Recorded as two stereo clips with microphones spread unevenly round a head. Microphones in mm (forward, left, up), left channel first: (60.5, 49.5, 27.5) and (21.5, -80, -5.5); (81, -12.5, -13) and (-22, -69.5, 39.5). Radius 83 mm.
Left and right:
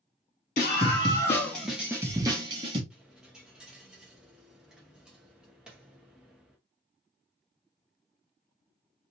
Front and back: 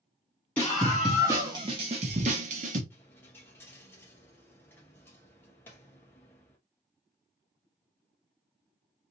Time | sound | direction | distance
0.6 | a scream | 115° left | 0.8 m
2.9 | a dropped coin | 145° left | 0.8 m